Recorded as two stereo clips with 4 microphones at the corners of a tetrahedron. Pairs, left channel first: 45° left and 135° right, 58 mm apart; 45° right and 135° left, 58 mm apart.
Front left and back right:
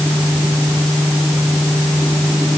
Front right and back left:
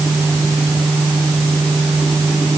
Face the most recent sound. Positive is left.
No sound to turn to.